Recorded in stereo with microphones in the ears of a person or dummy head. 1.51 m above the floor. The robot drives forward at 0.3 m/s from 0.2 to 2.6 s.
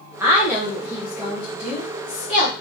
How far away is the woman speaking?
About 0.5 m.